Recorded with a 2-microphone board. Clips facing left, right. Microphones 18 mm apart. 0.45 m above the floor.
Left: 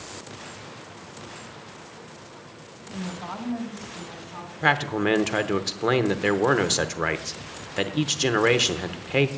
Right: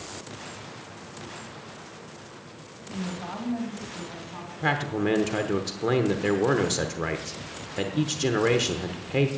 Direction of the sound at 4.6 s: 25° left (ahead or behind).